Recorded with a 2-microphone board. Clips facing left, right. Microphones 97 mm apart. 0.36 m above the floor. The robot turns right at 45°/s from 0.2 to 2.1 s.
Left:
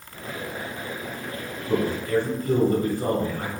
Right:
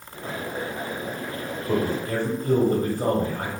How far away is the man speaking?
About 1.4 m.